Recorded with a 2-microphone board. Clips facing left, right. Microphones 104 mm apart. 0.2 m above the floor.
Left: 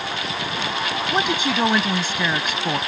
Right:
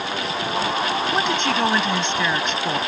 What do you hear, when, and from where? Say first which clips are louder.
1.1 s a woman speaking: left 3 dB; 5° left (ahead or behind)